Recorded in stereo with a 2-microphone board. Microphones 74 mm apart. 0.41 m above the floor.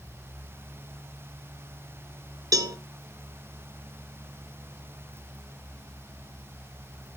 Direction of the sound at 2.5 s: 50° right (ahead or behind).